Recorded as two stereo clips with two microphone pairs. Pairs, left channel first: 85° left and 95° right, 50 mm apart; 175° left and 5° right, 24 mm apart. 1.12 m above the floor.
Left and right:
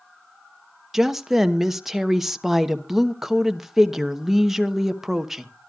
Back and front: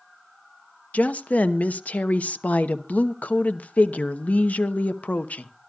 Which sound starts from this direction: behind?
A woman speaking, at 0.9 s.